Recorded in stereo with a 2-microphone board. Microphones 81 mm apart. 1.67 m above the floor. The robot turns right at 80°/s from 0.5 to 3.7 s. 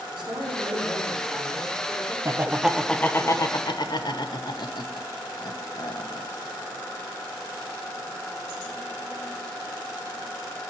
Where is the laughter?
40° right (ahead or behind), 1.0 m; by 6.3 s 60° left (ahead or behind), 1.0 m.